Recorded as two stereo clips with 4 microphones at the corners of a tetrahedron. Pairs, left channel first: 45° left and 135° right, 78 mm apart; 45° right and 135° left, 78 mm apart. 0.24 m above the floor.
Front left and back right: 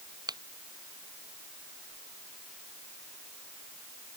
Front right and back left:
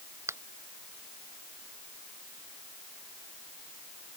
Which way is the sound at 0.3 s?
170° right.